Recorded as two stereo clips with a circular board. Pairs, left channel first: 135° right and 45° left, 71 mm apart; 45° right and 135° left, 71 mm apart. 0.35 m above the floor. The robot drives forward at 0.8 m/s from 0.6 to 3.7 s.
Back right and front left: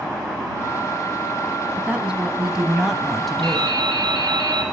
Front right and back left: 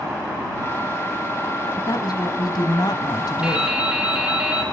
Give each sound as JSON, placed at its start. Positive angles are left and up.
{"t": 1.8, "sound": "a woman speaking", "azimuth_deg": -30, "distance_m": 3.0}
{"t": 3.4, "sound": "dripping", "azimuth_deg": 55, "distance_m": 3.0}